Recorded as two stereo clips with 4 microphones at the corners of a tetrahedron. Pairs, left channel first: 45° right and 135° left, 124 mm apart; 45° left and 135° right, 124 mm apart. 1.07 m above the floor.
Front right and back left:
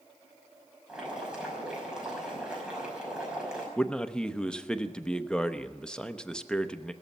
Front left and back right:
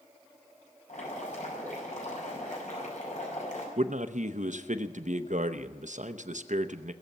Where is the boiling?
50° left, 5.5 m.